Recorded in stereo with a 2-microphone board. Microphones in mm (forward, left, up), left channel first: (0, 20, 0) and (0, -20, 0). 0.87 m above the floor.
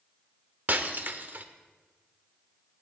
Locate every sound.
0.7 s breaking glass: 50° right (ahead or behind), 0.8 m